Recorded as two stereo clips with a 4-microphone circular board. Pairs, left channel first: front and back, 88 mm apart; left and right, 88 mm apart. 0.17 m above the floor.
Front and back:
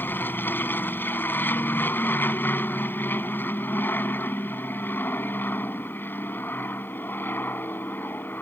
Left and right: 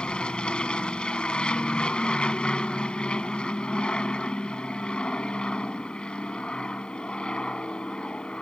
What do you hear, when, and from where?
0.0 s an aircraft: 25° left